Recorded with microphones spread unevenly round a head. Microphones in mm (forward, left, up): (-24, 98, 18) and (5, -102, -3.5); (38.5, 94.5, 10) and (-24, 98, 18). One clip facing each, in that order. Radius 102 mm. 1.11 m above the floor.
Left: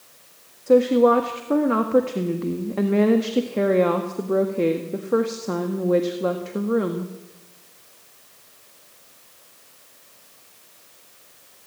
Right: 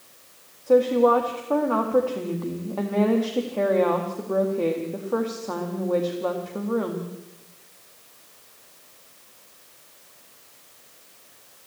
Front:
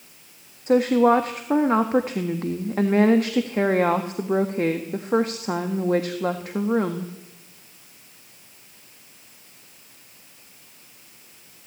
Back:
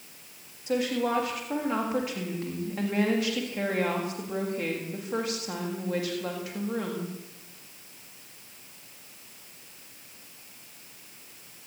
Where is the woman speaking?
35° left, 1.7 m.